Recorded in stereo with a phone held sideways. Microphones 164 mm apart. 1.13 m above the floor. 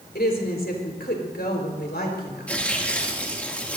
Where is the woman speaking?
80° left, 4.5 m.